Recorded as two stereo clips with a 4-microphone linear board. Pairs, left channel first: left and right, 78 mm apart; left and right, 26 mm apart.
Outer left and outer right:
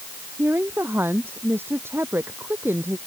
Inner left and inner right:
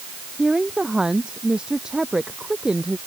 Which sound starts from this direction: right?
A woman speaking, at 0.4 s.